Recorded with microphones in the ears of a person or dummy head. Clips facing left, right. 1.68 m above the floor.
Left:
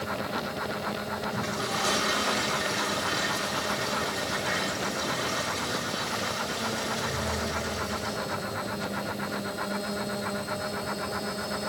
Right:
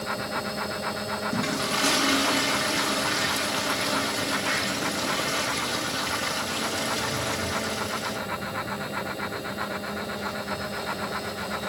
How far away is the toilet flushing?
About 2.5 m.